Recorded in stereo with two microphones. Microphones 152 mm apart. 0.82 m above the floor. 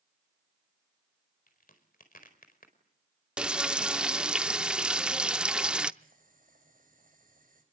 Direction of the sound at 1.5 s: 70° left (ahead or behind).